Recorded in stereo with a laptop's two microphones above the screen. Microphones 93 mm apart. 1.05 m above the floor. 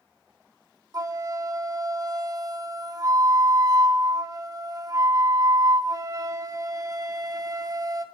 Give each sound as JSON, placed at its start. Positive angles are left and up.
{"t": 0.9, "sound": "a flute", "side_deg": -45, "distance_m": 0.7}